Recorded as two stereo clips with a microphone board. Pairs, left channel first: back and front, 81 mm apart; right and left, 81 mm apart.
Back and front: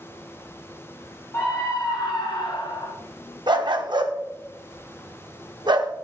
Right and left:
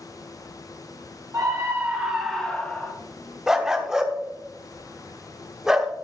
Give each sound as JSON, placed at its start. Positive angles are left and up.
{"t": 1.3, "sound": "a scream", "azimuth_deg": 130, "distance_m": 1.2}
{"t": 3.5, "sound": "a dog barking", "azimuth_deg": 5, "distance_m": 0.9}